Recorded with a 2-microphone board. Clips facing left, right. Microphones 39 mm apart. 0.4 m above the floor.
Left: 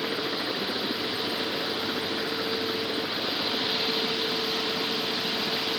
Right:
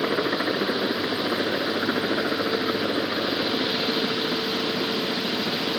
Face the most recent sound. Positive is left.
turn(degrees=-45)  # may be behind; listen again after turning